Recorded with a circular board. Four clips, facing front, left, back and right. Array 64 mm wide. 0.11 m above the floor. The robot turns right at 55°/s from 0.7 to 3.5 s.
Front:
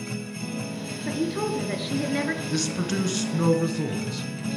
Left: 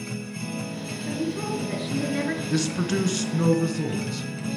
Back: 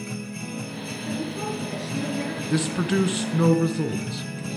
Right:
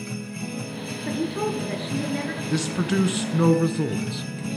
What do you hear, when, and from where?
1.1 s a woman speaking: 50° right, 2 m; by 2.4 s 20° left, 2 m
2.5 s a man speaking: 170° right, 1.1 m; by 4.5 s 115° right, 1.1 m